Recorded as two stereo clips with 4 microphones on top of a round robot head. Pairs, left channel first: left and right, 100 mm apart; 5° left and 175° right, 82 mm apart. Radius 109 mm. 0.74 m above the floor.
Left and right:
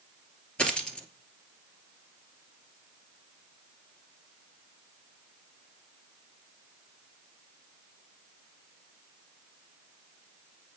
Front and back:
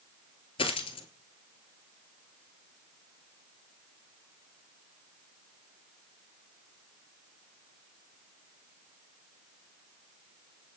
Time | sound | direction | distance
0.6 | a dropped coin | 10° left | 1.7 m